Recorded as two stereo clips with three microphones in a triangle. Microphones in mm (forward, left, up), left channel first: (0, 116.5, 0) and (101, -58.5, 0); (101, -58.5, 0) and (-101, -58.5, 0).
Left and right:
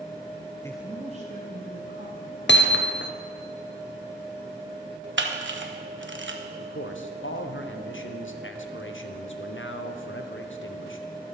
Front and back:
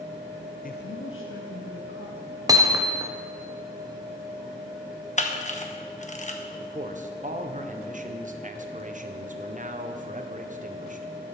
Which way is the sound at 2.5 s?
110° left.